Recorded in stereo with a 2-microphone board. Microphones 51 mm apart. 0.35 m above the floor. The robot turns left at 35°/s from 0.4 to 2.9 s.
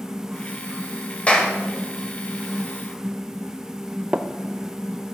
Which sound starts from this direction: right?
Tapping, at 4.1 s.